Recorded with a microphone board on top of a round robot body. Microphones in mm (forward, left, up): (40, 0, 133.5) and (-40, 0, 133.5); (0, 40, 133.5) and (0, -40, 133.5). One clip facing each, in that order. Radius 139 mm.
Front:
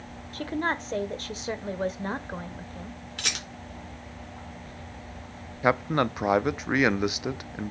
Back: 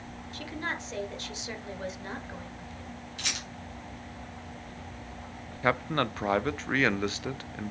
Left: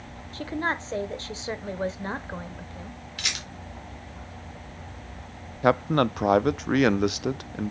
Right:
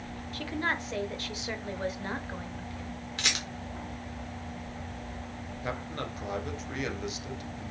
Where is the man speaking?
75° left, 0.5 m.